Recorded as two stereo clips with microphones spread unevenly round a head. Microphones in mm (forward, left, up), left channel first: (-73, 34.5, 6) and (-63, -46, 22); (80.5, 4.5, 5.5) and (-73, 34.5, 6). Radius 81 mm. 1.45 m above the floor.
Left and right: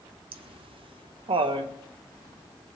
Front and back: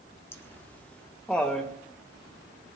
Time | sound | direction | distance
0.3 | laughter | 90° right | 1.1 m